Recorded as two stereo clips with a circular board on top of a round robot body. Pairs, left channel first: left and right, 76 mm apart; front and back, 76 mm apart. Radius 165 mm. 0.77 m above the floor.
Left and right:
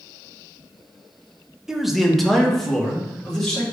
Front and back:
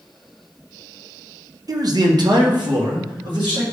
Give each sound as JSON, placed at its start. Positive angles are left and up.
{"t": 1.7, "sound": "a man speaking", "azimuth_deg": -175, "distance_m": 0.7}